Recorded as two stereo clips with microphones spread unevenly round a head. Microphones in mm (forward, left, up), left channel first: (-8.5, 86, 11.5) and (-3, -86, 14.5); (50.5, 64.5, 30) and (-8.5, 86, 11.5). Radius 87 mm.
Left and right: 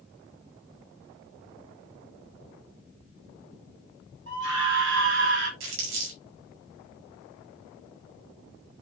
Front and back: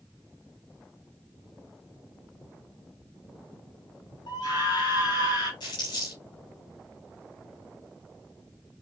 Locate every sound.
4.3 s a scream: 60° right, 6 m
5.6 s crumpling: 70° right, 6 m